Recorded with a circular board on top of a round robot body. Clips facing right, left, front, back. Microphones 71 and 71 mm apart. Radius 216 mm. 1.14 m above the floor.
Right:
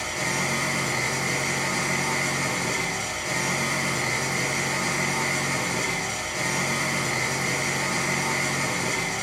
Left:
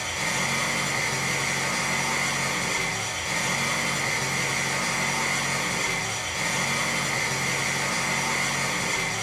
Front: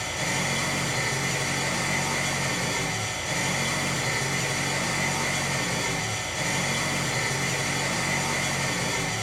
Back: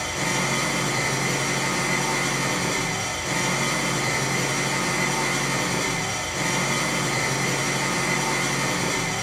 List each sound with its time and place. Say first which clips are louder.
0.0 s an engine running: right 1 dB, back 3 dB; 160° right, 0.9 m